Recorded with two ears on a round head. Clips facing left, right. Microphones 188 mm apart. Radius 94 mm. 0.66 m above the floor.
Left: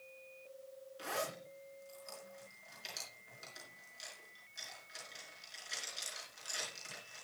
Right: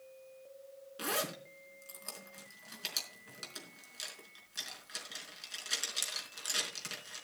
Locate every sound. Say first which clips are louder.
1.0 s a zipper: right 3 dB; 75° right (ahead or behind), 4.5 m